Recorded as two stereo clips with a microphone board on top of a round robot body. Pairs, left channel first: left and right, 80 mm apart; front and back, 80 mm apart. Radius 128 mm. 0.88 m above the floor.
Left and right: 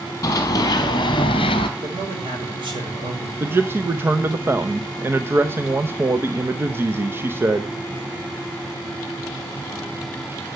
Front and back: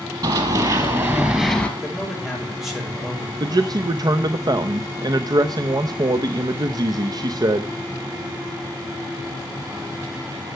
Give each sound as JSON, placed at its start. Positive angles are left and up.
{"t": 0.2, "sound": "running footsteps", "azimuth_deg": 145, "distance_m": 1.9}
{"t": 1.8, "sound": "a man speaking", "azimuth_deg": -90, "distance_m": 5.5}
{"t": 3.4, "sound": "a man speaking", "azimuth_deg": -150, "distance_m": 0.8}